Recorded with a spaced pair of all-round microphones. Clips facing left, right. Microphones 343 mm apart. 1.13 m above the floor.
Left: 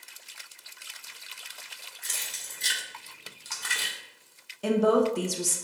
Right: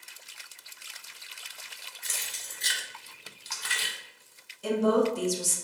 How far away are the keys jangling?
About 1.0 m.